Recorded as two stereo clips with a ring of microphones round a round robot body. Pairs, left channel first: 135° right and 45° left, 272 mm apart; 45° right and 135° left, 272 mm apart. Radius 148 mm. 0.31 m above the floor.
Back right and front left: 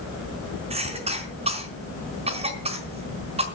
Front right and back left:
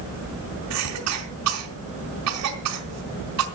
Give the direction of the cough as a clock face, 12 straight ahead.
8 o'clock.